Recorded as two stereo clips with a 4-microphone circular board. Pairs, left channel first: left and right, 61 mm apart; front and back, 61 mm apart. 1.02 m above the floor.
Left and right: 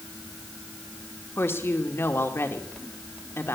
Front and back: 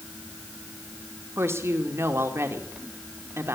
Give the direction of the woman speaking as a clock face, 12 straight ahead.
7 o'clock.